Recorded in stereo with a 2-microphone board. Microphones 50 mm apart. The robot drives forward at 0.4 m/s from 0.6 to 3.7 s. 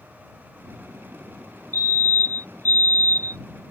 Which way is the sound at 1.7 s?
50° left (ahead or behind).